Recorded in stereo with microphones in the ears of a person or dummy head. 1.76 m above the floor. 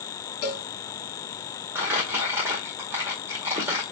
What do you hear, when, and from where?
0.4 s a cowbell: 40° left (ahead or behind), 1.9 m
1.8 s crumpling: 20° right (ahead or behind), 1.9 m